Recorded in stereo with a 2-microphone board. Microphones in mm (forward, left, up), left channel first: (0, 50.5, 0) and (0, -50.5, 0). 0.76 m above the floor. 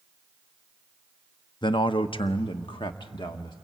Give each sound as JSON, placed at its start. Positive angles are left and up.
{"t": 1.6, "sound": "a man speaking", "side_deg": 50, "distance_m": 0.6}